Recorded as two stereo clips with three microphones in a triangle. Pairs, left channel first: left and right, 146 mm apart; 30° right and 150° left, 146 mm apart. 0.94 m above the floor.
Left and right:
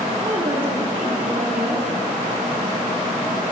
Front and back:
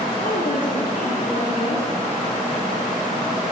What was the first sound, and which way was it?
A woman speaking, 30° right.